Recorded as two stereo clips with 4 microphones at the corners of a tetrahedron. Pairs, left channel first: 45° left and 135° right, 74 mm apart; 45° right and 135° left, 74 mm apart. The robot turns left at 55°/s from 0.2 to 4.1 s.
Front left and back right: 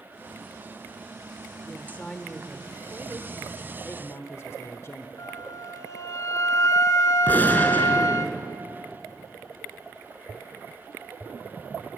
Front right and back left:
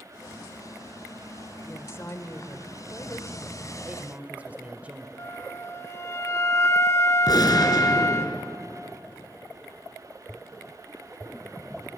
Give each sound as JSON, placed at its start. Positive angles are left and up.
{"t": 1.6, "sound": "a woman speaking", "azimuth_deg": 0, "distance_m": 1.7}
{"t": 3.8, "sound": "a man speaking", "azimuth_deg": 90, "distance_m": 1.3}
{"t": 5.2, "sound": "a flute", "azimuth_deg": 5, "distance_m": 0.9}
{"t": 7.3, "sound": "a gunshot", "azimuth_deg": -20, "distance_m": 2.5}